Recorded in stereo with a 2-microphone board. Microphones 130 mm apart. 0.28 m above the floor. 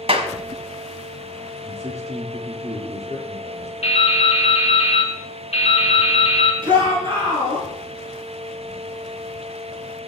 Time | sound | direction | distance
0.1 | a clap | 50° right (ahead or behind) | 1.3 m
1.6 | a man speaking | 55° right (ahead or behind) | 4 m
3.8 | dripping | 50° left (ahead or behind) | 2 m
6.6 | a shout | 35° right (ahead or behind) | 3.5 m